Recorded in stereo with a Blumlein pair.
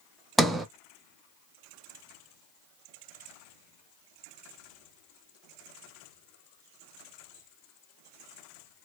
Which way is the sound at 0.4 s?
10° right.